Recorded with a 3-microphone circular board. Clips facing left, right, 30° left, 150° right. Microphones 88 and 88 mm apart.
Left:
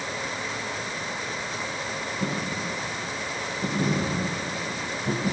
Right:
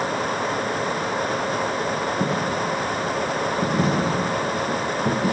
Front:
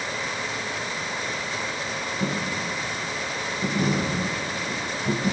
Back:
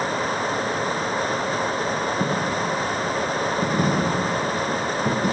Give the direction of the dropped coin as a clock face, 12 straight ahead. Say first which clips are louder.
Right 7 dB, back 5 dB; 4 o'clock.